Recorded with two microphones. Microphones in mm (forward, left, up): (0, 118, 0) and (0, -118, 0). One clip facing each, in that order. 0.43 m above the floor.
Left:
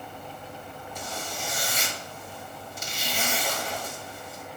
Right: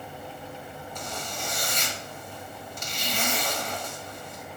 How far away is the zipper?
About 1.2 m.